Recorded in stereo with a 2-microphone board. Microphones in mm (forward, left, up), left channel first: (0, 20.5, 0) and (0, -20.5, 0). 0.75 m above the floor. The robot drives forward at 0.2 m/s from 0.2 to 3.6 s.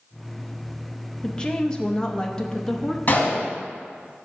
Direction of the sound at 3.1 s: 45° left (ahead or behind).